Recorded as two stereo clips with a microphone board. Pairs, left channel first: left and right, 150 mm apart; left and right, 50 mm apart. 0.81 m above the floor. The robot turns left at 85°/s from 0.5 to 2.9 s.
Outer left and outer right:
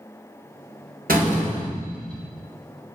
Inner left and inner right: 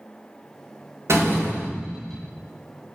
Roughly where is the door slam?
Right.